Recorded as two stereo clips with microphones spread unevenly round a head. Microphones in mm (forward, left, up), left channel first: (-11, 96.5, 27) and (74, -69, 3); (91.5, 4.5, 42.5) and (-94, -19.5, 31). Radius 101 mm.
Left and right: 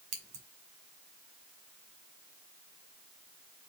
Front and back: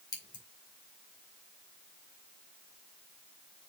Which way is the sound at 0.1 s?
65° right.